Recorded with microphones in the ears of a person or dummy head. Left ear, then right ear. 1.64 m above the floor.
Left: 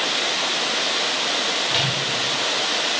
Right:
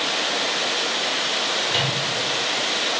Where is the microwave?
5° left (ahead or behind), 2.5 m.